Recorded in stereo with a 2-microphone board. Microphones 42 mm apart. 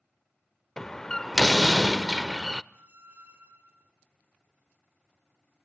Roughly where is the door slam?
Centre.